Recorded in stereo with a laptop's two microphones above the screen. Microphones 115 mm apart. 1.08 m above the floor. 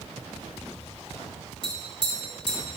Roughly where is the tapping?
Left.